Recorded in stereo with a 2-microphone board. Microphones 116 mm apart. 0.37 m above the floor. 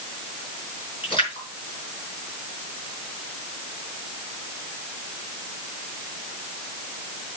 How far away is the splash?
About 5 m.